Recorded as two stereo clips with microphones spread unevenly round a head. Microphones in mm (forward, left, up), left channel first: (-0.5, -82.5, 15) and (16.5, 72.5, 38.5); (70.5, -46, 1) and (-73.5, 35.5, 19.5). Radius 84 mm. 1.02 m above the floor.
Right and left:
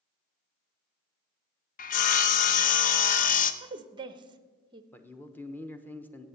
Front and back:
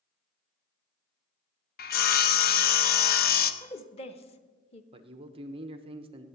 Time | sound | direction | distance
1.8 | sawing | 60° right | 0.7 m
3.6 | a woman speaking | 20° left | 0.9 m
4.9 | a man speaking | 160° right | 0.9 m